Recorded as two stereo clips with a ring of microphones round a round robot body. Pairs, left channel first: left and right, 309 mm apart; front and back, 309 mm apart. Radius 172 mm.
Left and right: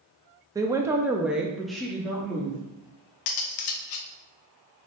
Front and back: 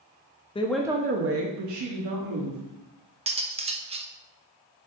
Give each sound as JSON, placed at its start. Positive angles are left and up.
{"t": 0.6, "sound": "a woman speaking", "azimuth_deg": -30, "distance_m": 0.5}
{"t": 3.3, "sound": "cutlery clinking", "azimuth_deg": 110, "distance_m": 0.6}